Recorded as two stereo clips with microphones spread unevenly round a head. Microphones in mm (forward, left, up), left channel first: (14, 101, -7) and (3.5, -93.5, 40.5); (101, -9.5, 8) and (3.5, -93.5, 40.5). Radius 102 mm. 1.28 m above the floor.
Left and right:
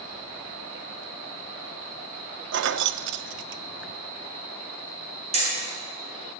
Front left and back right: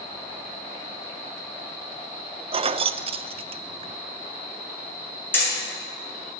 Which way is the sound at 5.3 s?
35° right.